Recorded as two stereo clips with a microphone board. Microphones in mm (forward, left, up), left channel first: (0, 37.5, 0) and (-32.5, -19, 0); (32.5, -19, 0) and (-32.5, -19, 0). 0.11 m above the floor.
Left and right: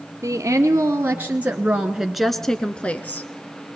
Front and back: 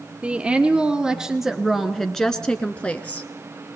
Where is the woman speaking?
110° right, 1.6 m; by 3.3 s 40° left, 1.2 m.